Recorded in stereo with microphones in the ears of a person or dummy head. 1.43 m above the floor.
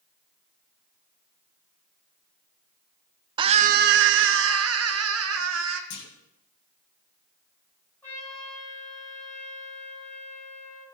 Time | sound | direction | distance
3.4 | a scream | 25° right (ahead or behind) | 0.6 m
5.9 | a clunk | 65° left (ahead or behind) | 2.5 m
8.0 | a trumpet | 15° left (ahead or behind) | 7.5 m